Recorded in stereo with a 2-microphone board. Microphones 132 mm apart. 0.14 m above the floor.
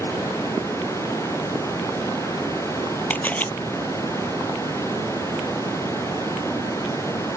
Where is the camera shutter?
15° left (ahead or behind).